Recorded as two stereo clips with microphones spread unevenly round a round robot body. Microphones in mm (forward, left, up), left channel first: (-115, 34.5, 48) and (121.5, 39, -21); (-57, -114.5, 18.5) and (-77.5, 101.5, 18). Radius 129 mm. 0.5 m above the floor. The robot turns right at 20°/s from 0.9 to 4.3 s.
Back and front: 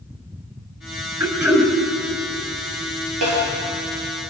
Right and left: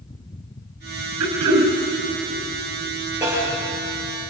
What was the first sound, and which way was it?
Throat clearing, 80° left.